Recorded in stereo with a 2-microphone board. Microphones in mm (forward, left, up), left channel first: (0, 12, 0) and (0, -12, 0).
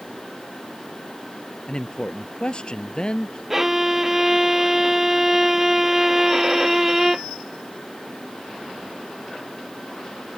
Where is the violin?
15° right (ahead or behind).